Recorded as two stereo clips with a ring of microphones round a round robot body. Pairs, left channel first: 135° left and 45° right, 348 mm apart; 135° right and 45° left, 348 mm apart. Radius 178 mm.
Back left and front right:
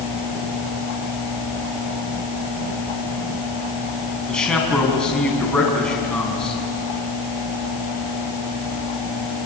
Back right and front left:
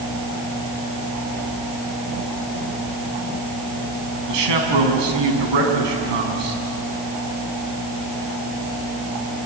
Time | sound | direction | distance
4.3 | a man speaking | 50° left | 4.5 m